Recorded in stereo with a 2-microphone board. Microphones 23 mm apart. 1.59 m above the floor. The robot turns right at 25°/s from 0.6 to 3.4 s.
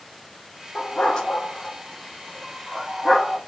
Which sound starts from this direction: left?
A dog barking, at 0.8 s.